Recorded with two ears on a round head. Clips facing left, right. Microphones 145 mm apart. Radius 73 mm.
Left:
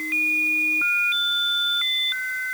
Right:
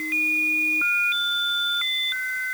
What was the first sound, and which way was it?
Only background noise.